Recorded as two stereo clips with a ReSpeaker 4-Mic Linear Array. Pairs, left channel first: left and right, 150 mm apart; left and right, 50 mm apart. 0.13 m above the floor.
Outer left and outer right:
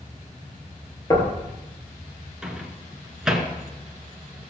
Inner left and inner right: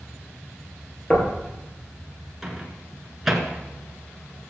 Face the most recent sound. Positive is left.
turn(degrees=-5)  # may be behind; listen again after turning